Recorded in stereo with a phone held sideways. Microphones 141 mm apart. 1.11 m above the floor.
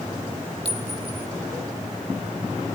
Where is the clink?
45° right (ahead or behind), 1.3 m.